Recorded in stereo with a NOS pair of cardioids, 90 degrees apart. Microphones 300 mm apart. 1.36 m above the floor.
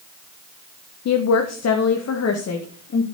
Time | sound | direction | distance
1.1 | a woman speaking | 60° left | 1.1 m